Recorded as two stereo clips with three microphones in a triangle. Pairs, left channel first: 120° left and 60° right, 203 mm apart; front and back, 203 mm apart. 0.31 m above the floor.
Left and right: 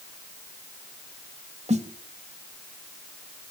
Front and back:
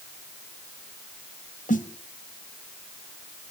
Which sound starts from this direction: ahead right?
A snare drum, at 1.7 s.